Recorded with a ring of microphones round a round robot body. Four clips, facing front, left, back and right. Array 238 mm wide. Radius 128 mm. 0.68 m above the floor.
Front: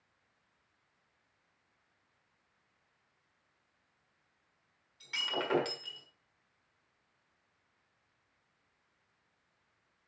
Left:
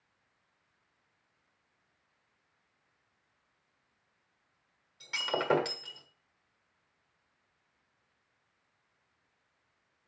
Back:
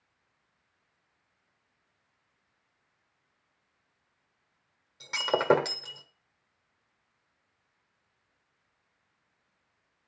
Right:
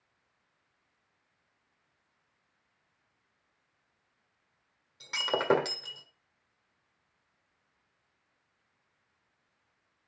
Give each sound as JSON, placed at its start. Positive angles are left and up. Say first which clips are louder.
{"t": 5.0, "sound": "breaking glass", "louder": "right 2 dB, back 9 dB", "azimuth_deg": -150, "distance_m": 1.5}